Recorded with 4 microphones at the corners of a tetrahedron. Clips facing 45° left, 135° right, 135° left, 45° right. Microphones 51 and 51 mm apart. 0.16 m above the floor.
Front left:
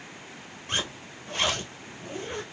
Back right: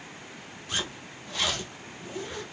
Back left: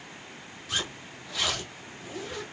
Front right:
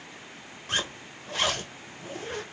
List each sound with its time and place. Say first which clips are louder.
0.7 s a zipper: front left 2 dB, front right 2 dB; 5° left, 1.8 m